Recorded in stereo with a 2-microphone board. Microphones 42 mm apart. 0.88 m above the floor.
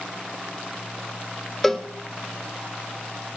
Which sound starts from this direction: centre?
A cowbell, at 1.6 s.